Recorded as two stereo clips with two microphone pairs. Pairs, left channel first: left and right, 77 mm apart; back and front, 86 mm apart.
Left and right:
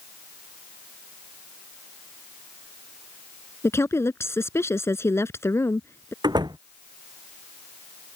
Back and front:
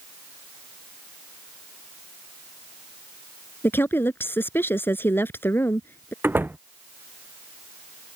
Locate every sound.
3.6 s a woman speaking: 125° left
6.2 s a door slam: 70° right